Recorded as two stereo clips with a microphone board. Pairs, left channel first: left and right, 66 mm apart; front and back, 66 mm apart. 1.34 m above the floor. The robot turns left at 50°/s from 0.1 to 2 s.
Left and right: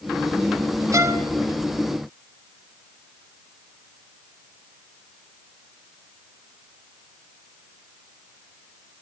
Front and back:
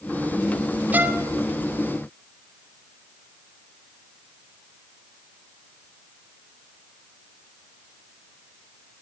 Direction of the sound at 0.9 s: 120° right.